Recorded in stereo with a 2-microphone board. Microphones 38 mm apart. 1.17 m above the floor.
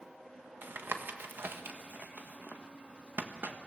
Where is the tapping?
65° right (ahead or behind), 1.3 m.